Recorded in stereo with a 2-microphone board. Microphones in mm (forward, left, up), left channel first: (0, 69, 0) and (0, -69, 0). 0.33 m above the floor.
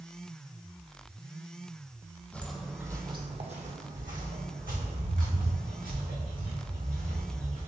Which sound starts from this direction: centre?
Footsteps, at 2.3 s.